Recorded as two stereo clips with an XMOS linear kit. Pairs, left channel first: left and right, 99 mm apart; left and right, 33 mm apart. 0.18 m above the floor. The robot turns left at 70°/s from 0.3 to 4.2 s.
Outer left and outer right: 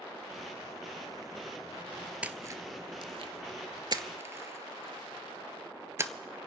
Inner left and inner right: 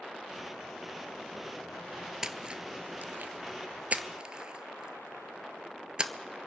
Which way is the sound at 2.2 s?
15° right (ahead or behind).